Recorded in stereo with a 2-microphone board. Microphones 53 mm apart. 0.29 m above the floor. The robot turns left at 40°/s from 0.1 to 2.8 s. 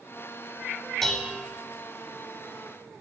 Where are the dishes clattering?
5° left (ahead or behind), 0.9 m; by 1.5 s 20° left (ahead or behind), 0.9 m.